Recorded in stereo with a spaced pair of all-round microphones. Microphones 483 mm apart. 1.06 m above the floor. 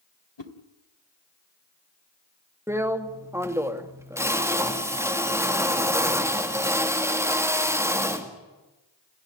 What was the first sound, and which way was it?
A whoosh, 60° left (ahead or behind).